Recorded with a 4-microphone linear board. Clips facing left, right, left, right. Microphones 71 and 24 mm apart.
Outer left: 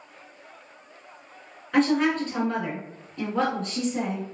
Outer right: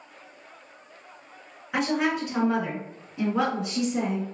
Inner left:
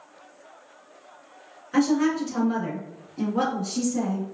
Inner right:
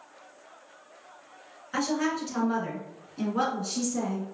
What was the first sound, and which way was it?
A woman speaking, 15° right (ahead or behind).